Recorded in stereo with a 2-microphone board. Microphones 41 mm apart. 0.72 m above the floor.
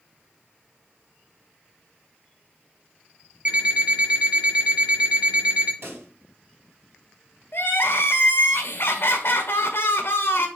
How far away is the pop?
About 4.5 m.